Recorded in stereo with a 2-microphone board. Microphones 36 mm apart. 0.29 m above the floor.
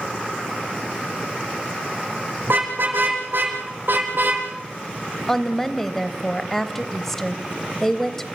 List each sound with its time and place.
2.4 s a car horn: 75° right (ahead or behind), 6 m; by 4.5 s 65° right (ahead or behind), 3.5 m
5.3 s a woman speaking: 10° left (ahead or behind), 1.2 m